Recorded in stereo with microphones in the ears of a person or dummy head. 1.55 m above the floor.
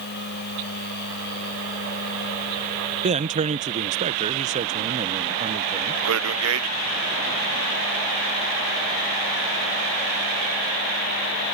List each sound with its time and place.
0.0 s a machine running: 55° left (ahead or behind)
3.0 s a man speaking: 35° right (ahead or behind)
6.0 s a man speaking: 80° right